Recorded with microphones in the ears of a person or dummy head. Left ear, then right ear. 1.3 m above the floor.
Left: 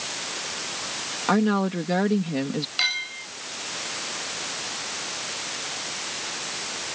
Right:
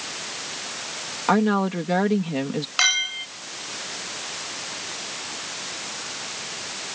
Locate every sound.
1.3 s a woman speaking: 20° right (ahead or behind)
2.8 s a clink: 45° right (ahead or behind)